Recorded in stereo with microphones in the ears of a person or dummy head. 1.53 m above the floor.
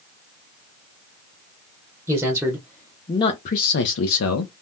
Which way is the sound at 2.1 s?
10° right (ahead or behind).